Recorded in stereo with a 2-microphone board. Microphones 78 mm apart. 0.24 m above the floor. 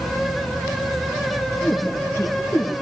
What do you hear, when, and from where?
1.6 s a woman speaking: 25° left (ahead or behind), 4 m